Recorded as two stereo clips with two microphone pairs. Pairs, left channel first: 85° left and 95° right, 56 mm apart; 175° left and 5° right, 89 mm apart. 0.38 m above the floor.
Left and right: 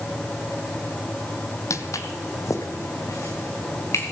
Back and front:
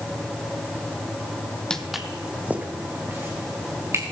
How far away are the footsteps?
About 0.7 m.